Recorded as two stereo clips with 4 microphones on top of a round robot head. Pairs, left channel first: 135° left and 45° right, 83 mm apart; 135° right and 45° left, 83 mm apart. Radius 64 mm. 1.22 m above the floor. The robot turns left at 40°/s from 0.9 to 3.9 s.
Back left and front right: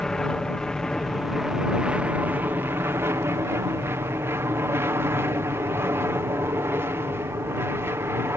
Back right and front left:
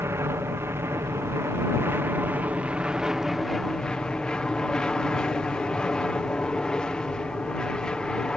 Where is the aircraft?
55° left; by 8.4 s 65° right.